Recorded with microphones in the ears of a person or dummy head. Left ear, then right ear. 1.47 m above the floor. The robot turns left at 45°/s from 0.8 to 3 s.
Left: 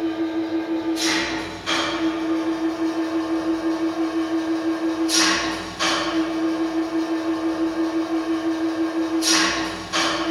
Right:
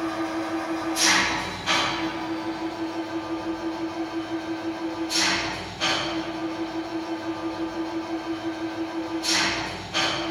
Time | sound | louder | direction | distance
0.0 | an engine running | left 3 dB | 140° right | 3 m